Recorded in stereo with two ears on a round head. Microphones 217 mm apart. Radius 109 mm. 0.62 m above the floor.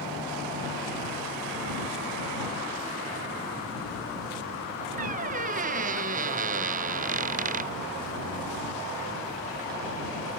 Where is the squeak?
35° right (ahead or behind).